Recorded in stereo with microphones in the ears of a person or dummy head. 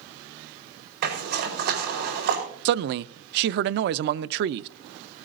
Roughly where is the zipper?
Right.